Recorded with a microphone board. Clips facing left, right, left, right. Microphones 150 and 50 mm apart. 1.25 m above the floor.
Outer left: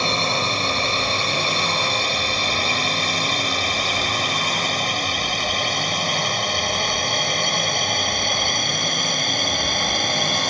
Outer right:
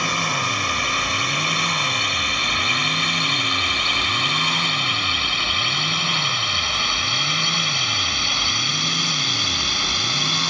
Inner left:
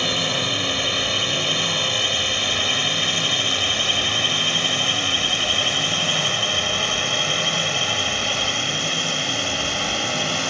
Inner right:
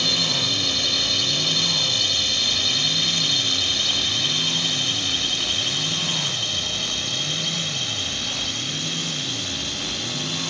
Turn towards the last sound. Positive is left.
turn(degrees=50)  # may be behind; listen again after turning